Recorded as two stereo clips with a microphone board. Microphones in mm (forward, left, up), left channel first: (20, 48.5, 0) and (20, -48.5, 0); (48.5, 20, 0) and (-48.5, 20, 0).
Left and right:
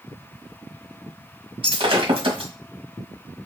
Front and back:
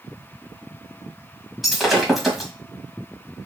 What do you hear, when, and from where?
1.6 s breaking glass: 90° right, 1.5 m